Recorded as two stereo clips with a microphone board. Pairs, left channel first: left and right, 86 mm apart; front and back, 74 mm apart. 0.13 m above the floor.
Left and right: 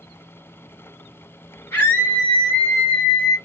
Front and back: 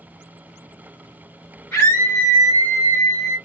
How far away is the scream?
About 2 m.